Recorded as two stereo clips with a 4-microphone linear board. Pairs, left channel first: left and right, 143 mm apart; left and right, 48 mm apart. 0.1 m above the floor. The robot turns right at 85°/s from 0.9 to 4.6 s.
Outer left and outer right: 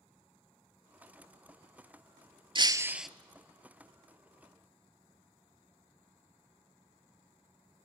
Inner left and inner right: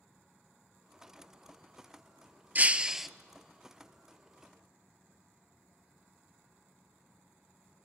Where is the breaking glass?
45° right, 0.6 m; by 3.1 s straight ahead, 0.6 m.